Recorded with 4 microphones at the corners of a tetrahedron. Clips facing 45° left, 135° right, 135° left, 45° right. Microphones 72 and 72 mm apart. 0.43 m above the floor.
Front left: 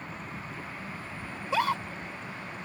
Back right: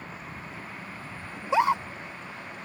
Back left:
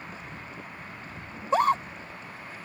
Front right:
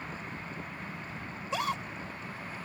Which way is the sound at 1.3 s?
160° left.